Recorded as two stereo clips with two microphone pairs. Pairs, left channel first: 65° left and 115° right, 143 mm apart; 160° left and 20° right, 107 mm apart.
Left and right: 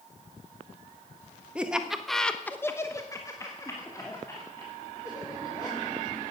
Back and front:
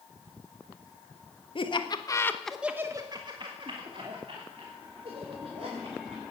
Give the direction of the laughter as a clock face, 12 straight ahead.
7 o'clock.